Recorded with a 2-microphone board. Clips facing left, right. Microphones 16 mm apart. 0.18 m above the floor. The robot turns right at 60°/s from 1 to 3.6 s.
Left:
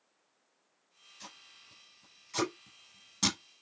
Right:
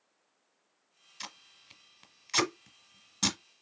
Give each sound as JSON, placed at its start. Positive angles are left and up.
{"t": 1.2, "sound": "tape being pulled", "side_deg": -50, "distance_m": 1.0}